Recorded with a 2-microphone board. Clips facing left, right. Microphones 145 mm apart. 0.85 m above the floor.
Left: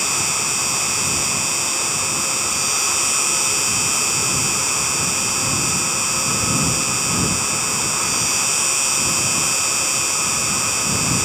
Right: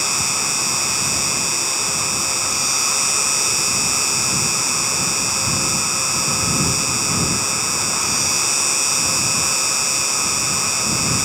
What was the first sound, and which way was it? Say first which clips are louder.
An insect: even; 35° right (ahead or behind).